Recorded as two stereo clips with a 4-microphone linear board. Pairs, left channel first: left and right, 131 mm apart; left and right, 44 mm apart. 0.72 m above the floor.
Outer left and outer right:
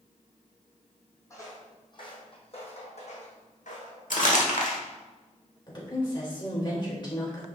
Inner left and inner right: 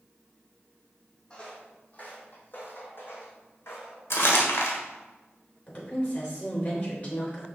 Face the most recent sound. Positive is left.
turn(degrees=35)  # may be behind; listen again after turning